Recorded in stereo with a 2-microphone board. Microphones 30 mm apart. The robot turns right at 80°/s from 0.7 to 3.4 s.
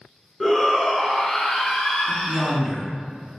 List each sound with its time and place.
0.4 s a shout: 15° left (ahead or behind), 1.2 m; by 2.6 s centre (ahead or behind), 1.2 m
2.1 s a woman speaking: 5° left (ahead or behind), 1.2 m; by 2.9 s 25° right (ahead or behind), 1.2 m